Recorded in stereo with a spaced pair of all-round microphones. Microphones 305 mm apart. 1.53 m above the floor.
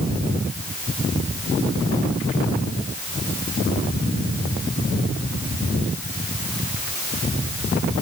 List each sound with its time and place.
Only background noise.